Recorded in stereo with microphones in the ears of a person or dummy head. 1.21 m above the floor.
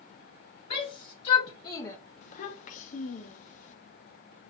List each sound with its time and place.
0.7 s a shout: 45° left (ahead or behind), 1.3 m; by 2.0 s 15° left (ahead or behind), 0.8 m
2.2 s a child speaking: 40° left (ahead or behind), 1.0 m